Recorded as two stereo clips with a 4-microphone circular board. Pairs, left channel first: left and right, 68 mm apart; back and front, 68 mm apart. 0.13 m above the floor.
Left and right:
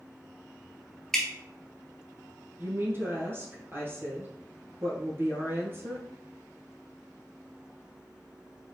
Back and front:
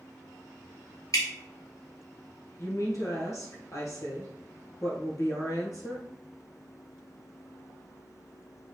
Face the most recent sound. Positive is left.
turn(degrees=-145)